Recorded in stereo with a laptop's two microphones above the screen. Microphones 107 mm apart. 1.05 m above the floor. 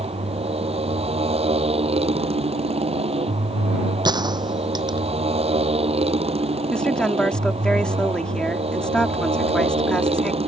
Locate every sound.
0.0 s a motorcycle: 70° right (ahead or behind)
4.0 s a gunshot: 40° right (ahead or behind)
6.7 s a woman speaking: 10° left (ahead or behind)